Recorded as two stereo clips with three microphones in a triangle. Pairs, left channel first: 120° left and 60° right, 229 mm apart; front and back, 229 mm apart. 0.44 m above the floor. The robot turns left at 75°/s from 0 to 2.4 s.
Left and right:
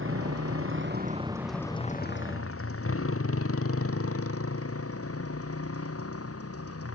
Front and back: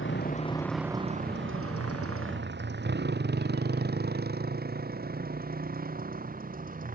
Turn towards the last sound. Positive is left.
turn(degrees=125)